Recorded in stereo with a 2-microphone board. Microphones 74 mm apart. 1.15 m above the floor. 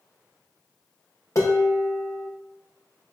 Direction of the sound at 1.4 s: 50° left (ahead or behind).